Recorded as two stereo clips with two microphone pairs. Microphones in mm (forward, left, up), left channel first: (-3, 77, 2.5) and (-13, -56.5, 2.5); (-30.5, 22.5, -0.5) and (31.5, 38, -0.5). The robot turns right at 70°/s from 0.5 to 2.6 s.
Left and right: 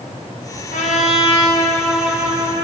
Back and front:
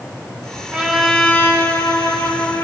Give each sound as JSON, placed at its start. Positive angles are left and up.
{"t": 0.7, "sound": "a trumpet", "azimuth_deg": 95, "distance_m": 1.7}